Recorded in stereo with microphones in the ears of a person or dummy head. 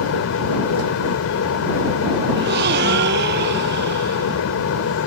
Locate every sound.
0.0 s a fan: 85° left
2.3 s a gasp: 60° right (ahead or behind)